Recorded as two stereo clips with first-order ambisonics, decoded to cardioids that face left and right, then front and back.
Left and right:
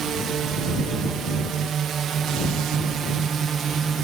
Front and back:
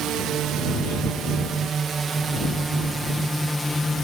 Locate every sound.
0.0 s a drone: 140° right; by 4.0 s 65° right